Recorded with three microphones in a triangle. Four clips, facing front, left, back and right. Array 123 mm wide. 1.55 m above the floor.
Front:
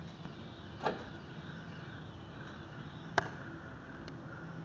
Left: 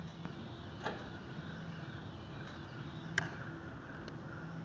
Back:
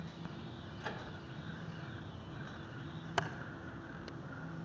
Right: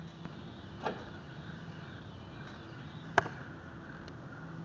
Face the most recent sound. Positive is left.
turn(degrees=-70)